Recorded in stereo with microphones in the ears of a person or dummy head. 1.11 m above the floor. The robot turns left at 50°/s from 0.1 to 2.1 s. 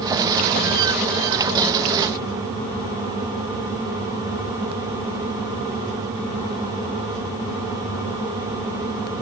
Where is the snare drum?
I don't hear a snare drum.